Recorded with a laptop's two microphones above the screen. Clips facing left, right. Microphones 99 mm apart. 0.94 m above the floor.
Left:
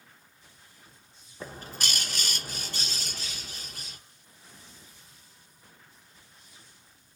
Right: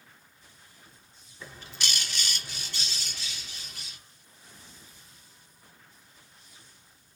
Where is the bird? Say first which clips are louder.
Left 3 dB; 45° left (ahead or behind), 0.9 m.